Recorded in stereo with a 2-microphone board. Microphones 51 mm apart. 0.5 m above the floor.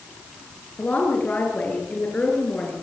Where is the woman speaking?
30° left (ahead or behind), 7.5 m; by 2.7 s 25° left (ahead or behind), 8.5 m.